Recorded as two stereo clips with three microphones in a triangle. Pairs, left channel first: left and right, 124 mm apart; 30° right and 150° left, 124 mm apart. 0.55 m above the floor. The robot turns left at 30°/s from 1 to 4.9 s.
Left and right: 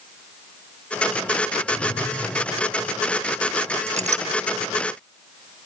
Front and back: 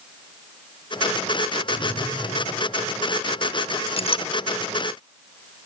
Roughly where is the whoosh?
Left.